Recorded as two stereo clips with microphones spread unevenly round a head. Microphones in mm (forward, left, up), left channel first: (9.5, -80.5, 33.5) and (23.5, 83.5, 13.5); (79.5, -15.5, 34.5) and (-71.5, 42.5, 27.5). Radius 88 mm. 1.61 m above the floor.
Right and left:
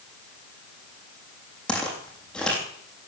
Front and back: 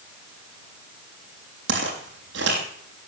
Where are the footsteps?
175° right, 3.5 m.